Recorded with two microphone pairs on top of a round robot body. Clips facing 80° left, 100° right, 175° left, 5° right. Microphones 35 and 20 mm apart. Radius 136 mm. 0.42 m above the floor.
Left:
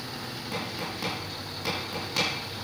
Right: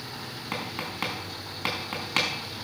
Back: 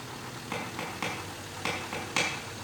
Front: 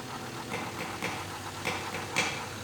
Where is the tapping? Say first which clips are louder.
Right 1 dB, back 1 dB; 115° right, 5 m.